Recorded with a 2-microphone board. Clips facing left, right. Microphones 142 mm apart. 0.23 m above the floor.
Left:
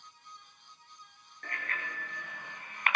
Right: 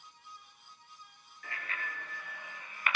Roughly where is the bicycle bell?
Left.